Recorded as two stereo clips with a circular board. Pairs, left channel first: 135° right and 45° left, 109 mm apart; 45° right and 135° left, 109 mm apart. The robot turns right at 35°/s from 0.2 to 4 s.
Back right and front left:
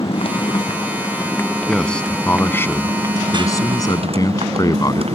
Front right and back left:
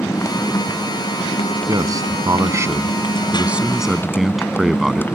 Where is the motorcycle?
110° right; by 5.1 s 25° left.